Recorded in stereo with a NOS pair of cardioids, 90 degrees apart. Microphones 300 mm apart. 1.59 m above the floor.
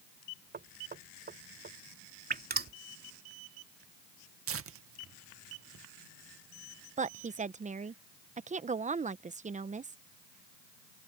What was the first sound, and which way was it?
Knocking, 30° right.